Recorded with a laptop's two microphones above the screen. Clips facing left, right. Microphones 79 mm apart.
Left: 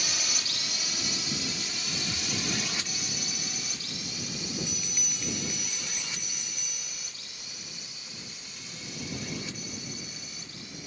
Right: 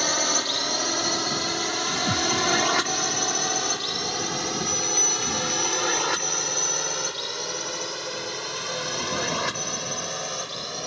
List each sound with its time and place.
0.0 s a drone: 60° right (ahead or behind); by 10.9 s 80° right
2.1 s a thud: 55° right (ahead or behind)
4.5 s a bell: 5° right (ahead or behind)